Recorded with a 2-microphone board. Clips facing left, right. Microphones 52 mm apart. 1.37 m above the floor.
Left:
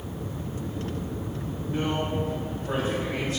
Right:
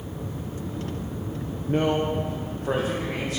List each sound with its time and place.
1.7 s a man speaking: 50° right (ahead or behind), 0.6 m; by 3.4 s 80° right, 1.8 m